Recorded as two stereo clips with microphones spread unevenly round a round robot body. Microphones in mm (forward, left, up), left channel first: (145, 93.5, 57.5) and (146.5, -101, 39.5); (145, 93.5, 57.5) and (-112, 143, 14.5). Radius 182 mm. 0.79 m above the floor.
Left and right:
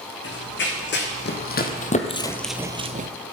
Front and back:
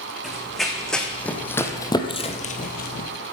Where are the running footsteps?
75° left, 3 m; by 3.1 s 55° right, 1.1 m.